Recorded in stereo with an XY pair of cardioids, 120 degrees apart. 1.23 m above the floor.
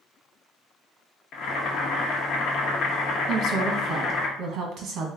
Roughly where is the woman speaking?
Ahead right.